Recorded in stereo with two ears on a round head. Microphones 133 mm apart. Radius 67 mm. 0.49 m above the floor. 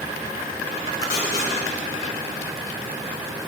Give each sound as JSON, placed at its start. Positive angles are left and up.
{"t": 1.0, "sound": "tape being pulled", "side_deg": 60, "distance_m": 3.0}